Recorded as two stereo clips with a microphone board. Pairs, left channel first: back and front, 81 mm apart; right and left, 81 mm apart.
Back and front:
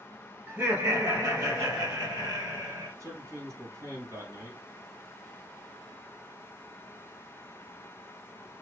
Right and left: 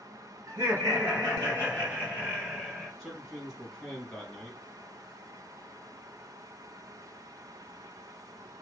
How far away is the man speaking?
About 1.7 m.